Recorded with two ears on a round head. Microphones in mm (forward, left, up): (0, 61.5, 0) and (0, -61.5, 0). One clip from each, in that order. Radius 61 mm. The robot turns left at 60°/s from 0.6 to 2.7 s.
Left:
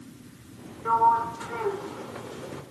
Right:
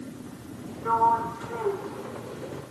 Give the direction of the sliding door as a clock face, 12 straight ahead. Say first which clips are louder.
Left 1 dB; 7 o'clock.